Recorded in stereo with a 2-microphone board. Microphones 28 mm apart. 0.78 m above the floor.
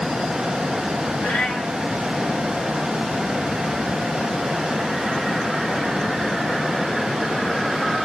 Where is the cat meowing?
65° left (ahead or behind), 3 m.